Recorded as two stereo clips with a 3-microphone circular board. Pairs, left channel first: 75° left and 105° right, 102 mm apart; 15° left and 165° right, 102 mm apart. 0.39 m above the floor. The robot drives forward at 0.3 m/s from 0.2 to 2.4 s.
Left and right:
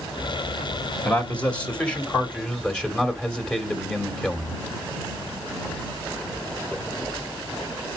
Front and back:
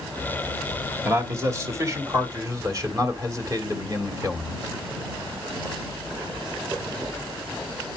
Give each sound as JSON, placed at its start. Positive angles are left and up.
{"t": 1.1, "sound": "a man speaking", "azimuth_deg": 145, "distance_m": 1.6}